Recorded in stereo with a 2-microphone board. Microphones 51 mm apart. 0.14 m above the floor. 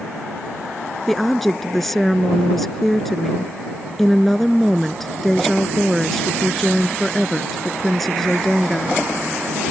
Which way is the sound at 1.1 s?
5° left (ahead or behind).